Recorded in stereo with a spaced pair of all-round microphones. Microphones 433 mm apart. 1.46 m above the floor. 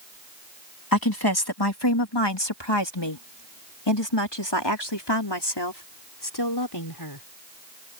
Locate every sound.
0.9 s a woman speaking: 55° left (ahead or behind); by 7.3 s 60° left (ahead or behind)